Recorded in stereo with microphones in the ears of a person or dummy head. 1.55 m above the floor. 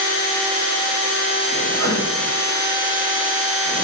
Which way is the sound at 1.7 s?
60° right (ahead or behind).